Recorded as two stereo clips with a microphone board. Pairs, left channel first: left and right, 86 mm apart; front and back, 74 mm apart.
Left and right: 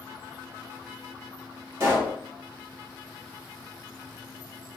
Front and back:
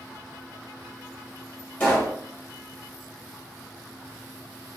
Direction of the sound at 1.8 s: 55° right.